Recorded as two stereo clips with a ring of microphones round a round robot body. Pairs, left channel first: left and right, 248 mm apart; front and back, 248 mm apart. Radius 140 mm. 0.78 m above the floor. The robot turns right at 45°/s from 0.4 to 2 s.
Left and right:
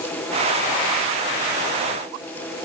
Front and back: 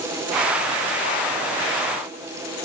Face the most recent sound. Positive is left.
No sound to turn to.